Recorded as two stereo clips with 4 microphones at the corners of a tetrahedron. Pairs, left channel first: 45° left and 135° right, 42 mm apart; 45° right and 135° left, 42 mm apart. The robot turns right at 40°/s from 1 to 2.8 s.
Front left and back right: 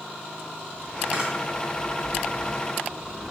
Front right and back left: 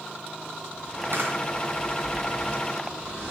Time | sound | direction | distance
1.1 | a camera shutter | 155° left | 2.5 m